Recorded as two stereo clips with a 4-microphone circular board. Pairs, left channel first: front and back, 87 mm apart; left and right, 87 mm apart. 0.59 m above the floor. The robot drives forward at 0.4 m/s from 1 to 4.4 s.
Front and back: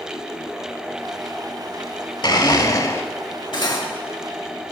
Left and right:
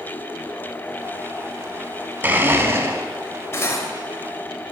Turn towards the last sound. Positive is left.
turn(degrees=40)